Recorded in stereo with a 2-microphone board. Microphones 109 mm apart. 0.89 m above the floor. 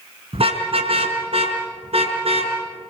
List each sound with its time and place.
0.3 s a car horn: 65° right (ahead or behind), 4 m